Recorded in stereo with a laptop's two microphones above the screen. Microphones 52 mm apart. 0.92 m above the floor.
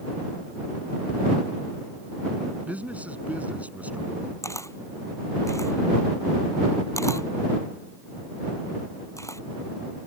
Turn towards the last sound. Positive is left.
turn(degrees=70)  # may be behind; listen again after turning